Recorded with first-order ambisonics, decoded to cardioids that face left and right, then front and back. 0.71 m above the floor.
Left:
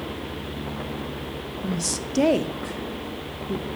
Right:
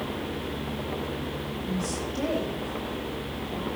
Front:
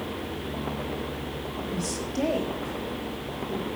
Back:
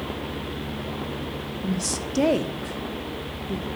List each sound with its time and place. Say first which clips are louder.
1.6 s a woman speaking: left 4 dB, back 5 dB; 125° left, 1.0 m